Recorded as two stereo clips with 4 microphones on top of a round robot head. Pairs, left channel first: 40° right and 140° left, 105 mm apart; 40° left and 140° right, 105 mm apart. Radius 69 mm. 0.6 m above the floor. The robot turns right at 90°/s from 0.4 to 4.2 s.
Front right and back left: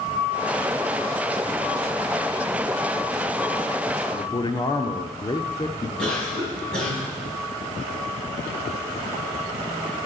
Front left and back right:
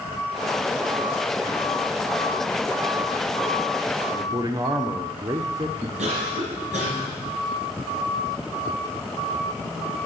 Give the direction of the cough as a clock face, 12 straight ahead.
4 o'clock.